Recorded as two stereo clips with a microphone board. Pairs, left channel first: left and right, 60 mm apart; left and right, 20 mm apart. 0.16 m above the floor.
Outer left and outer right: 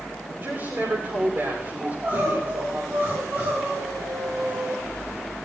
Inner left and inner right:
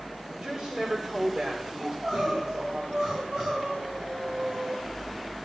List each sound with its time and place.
0.3 s a woman speaking: 40° right (ahead or behind), 9.5 m
1.8 s crying: 30° right (ahead or behind), 9 m